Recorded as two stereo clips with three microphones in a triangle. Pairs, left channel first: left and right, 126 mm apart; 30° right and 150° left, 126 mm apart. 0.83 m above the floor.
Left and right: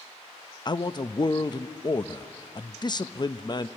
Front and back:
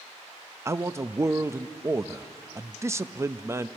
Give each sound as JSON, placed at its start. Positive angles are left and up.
{"t": 0.7, "sound": "a man speaking", "azimuth_deg": 100, "distance_m": 0.5}